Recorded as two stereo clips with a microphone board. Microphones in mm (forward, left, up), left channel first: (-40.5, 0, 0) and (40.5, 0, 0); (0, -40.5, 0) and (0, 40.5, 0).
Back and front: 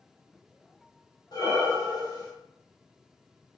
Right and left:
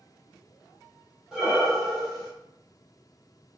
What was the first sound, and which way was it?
Breathing, 175° left.